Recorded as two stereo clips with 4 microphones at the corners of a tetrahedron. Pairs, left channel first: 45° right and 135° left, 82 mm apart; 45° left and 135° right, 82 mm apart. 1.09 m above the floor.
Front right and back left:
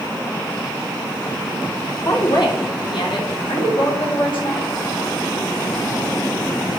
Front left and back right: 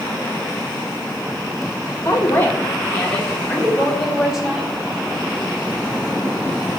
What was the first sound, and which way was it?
A woman speaking, 10° right.